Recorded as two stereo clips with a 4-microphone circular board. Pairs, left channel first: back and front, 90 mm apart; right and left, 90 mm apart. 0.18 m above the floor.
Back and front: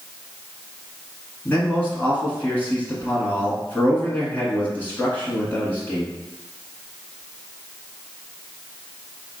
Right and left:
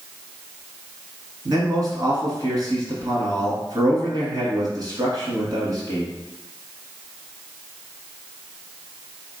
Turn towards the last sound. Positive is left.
turn(degrees=115)